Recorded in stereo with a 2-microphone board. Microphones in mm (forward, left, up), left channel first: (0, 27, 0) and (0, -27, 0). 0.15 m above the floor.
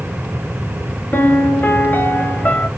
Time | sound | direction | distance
1.1 | a piano | 35° left (ahead or behind) | 0.7 m